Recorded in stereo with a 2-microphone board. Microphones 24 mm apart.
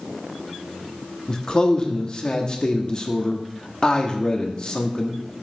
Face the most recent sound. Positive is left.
turn(degrees=30)  # may be behind; listen again after turning